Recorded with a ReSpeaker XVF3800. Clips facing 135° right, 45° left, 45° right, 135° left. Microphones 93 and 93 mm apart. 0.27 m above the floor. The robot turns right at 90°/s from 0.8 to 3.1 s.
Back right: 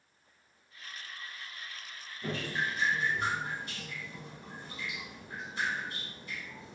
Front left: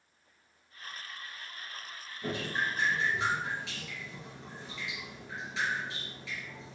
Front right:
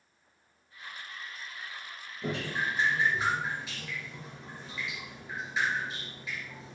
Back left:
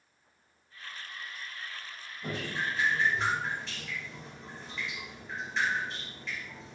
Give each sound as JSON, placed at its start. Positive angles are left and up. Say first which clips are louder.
{"t": 2.2, "sound": "dripping", "louder": "front left 1 dB, front right 2 dB", "azimuth_deg": -40, "distance_m": 2.5}